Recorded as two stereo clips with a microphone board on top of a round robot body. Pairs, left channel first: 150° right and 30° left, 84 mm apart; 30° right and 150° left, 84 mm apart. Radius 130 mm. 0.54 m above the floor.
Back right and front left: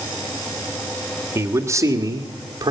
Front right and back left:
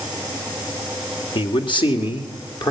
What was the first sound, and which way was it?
A man speaking, 30° right.